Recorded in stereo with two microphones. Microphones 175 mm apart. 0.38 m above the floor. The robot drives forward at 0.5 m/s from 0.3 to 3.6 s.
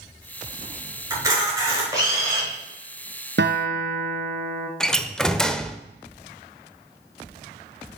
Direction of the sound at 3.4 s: 70° right (ahead or behind).